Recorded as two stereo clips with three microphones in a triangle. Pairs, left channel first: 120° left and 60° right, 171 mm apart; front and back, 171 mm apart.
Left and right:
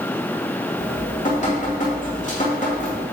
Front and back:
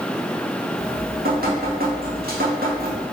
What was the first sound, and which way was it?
Dripping, 160° left.